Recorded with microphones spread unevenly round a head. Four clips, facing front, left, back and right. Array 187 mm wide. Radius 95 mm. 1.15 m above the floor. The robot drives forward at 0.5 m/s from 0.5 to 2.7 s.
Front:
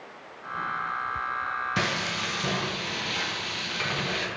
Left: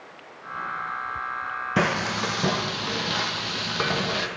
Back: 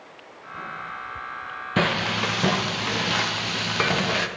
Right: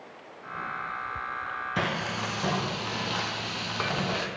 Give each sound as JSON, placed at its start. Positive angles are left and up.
{"t": 1.8, "sound": "frying", "azimuth_deg": 115, "distance_m": 0.8}